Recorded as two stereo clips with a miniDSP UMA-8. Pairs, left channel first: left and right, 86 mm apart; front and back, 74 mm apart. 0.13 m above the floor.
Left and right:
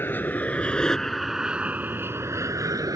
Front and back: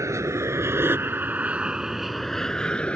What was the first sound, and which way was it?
An aircraft, 150° left.